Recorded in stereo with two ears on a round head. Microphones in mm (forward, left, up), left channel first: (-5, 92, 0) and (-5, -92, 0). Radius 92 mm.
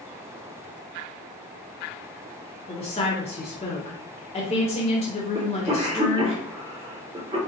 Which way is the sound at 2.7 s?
30° left (ahead or behind).